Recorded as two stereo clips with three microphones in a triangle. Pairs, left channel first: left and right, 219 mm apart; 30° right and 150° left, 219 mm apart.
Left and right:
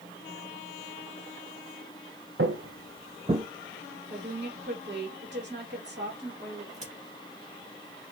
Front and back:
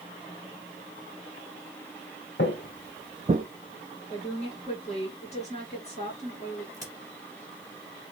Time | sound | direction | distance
2.4 | footsteps | 65° right | 0.9 m
4.1 | a woman speaking | 85° right | 2.5 m
6.7 | a crack | 140° right | 1.7 m